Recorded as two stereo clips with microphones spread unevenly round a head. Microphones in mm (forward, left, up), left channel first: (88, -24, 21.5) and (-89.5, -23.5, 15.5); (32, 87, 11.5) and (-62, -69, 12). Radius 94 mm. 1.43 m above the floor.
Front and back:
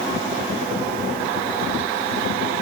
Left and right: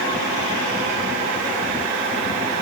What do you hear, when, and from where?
Only background noise.